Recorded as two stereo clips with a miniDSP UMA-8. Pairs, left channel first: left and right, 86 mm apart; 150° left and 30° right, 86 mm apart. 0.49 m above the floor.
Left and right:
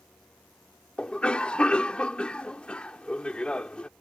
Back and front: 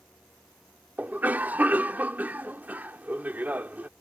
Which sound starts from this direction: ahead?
A cough, at 1.0 s.